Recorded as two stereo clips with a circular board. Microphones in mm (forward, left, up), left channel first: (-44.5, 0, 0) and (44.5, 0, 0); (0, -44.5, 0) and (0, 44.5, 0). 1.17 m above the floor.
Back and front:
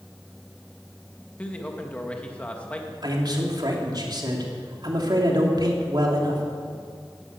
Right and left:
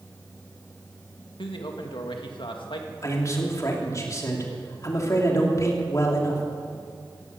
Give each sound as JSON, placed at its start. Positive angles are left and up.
{"t": 1.4, "sound": "a man speaking", "azimuth_deg": -105, "distance_m": 2.0}
{"t": 3.0, "sound": "a man speaking", "azimuth_deg": -35, "distance_m": 3.0}